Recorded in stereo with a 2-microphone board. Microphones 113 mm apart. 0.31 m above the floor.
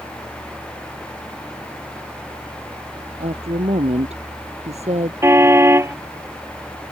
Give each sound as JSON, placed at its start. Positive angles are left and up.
{"t": 3.2, "sound": "a woman speaking", "side_deg": -70}
{"t": 5.2, "sound": "a car horn", "side_deg": -25}